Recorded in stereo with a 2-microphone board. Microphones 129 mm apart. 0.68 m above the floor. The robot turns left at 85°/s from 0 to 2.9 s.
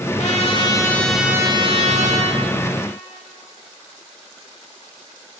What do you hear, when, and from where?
0.2 s a trumpet: 80° left, 0.8 m; by 2.4 s 110° right, 0.8 m